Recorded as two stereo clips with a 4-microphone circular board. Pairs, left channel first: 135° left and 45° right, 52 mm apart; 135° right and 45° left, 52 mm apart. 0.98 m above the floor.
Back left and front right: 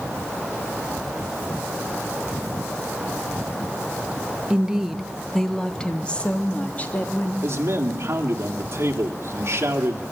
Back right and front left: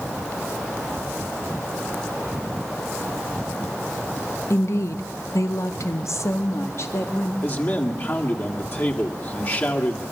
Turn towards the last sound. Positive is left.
turn(degrees=-85)